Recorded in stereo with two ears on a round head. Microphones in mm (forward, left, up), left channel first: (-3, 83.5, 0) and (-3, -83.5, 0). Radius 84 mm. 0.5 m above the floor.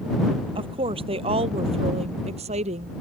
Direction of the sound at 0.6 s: 30° right (ahead or behind).